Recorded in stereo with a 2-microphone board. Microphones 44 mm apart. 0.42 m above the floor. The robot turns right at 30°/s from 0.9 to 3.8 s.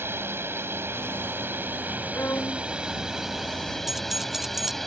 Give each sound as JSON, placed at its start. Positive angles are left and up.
{"t": 0.0, "sound": "a drone", "azimuth_deg": -80}
{"t": 2.1, "sound": "a violin", "side_deg": 55}
{"t": 3.9, "sound": "keys jangling", "side_deg": -10}